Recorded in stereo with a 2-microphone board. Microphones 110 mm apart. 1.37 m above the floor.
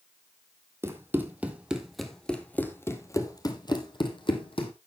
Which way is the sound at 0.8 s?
20° right (ahead or behind).